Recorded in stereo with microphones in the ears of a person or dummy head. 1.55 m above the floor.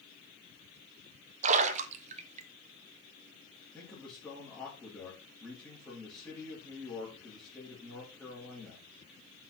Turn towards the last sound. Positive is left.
turn(degrees=5)  # may be behind; listen again after turning